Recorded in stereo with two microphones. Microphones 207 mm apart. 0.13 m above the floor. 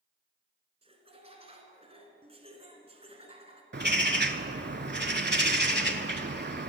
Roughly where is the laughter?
Right.